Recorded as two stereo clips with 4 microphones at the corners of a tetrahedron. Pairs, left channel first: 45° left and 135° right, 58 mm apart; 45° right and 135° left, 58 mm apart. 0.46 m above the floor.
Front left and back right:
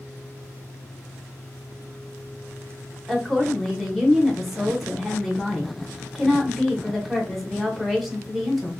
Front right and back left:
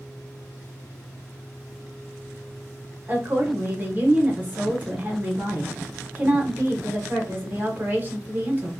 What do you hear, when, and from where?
3.1 s a woman speaking: 140° left, 0.9 m